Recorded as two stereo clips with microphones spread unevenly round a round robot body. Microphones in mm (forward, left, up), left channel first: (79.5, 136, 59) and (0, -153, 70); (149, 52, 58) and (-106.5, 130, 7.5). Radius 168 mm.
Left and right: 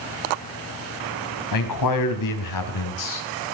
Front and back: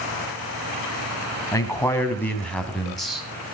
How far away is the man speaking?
About 4 m.